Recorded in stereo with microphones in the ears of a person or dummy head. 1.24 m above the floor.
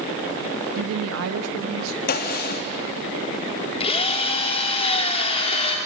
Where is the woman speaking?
65° right (ahead or behind), 0.8 m; by 2.0 s 85° right, 1.5 m.